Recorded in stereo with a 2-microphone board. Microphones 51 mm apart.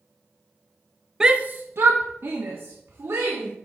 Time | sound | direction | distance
1.2 | a shout | 10° right (ahead or behind) | 0.5 m